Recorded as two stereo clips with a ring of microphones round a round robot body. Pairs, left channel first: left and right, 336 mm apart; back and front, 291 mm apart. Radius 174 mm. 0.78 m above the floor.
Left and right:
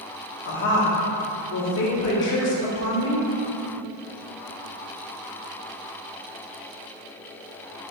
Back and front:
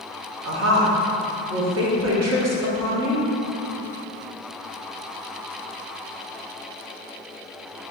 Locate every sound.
0.4 s a woman speaking: 35° left, 1.6 m